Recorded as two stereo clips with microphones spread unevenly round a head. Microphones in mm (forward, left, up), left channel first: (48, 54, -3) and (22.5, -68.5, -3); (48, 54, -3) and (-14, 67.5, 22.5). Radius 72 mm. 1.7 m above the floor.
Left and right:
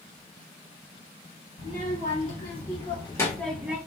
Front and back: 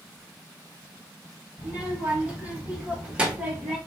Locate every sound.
1.6 s a child speaking: 110° left, 2.5 m; by 3.8 s 170° right, 1.0 m